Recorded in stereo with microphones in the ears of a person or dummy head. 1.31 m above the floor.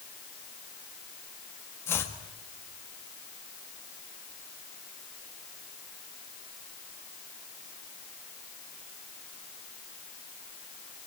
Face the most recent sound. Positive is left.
turn(degrees=15)  # may be behind; listen again after turning